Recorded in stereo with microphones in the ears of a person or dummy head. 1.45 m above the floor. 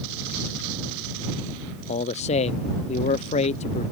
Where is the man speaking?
30° left (ahead or behind).